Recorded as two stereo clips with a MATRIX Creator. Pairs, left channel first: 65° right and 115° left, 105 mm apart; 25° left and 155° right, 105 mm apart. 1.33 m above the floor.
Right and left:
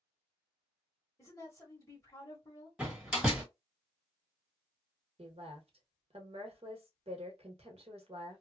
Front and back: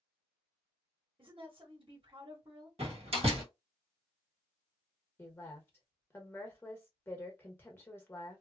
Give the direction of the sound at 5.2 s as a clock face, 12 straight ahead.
9 o'clock.